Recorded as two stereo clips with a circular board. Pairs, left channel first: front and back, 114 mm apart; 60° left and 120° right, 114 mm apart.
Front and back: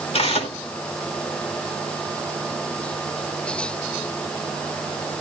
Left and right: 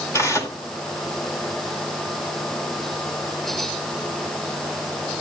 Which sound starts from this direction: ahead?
Tearing paper, at 0.1 s.